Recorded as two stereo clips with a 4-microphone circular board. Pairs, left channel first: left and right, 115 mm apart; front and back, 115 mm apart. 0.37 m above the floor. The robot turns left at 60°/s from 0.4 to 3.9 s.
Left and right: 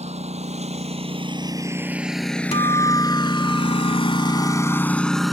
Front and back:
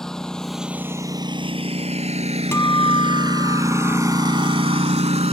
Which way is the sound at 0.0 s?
85° right.